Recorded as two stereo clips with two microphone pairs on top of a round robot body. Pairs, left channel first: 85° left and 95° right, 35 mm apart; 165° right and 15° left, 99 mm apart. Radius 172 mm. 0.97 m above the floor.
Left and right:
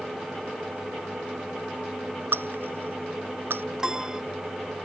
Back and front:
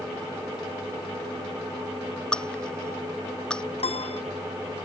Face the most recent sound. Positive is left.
turn(degrees=-165)